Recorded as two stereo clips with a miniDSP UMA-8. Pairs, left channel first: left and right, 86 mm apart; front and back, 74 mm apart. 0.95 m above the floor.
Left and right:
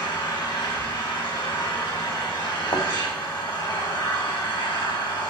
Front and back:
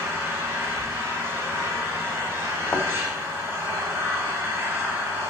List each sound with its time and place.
0.0 s an engine running: 125° left, 5.5 m
2.7 s a thud: 70° left, 1.4 m